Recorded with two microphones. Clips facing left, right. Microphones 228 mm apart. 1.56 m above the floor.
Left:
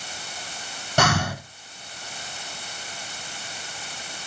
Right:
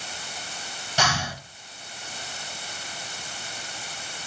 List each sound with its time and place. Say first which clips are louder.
1.0 s breathing: left 6 dB; 55° left (ahead or behind), 0.8 m